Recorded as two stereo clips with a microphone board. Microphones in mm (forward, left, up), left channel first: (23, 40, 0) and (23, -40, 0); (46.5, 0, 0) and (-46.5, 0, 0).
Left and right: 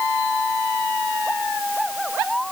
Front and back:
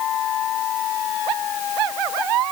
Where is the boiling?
No boiling in this recording.